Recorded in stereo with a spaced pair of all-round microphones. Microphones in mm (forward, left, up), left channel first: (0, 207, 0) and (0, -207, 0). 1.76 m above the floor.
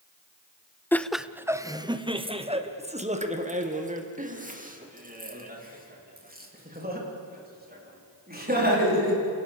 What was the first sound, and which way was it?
Laughter, 5° left (ahead or behind).